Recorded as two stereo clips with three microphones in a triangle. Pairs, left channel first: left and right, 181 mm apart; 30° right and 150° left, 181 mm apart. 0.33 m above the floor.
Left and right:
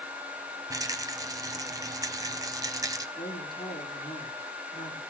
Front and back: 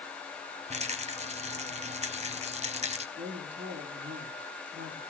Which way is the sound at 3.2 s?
155° left.